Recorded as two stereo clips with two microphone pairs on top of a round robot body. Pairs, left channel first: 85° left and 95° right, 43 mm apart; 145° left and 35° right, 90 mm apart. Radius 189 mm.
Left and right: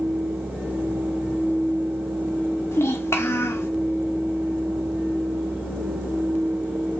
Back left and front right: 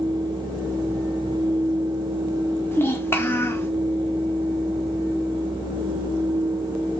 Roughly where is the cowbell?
I don't hear a cowbell.